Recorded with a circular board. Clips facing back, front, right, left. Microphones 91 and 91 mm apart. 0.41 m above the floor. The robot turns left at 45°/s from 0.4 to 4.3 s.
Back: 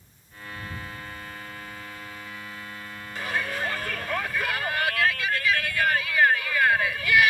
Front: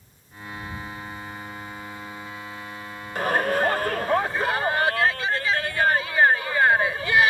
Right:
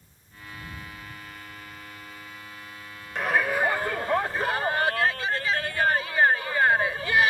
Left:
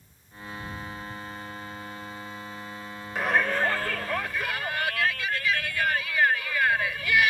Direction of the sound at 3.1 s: 5° left.